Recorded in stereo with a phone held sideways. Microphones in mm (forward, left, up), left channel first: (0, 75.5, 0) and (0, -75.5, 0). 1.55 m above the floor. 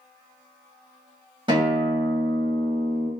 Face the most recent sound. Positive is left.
turn(degrees=-35)  # may be behind; listen again after turning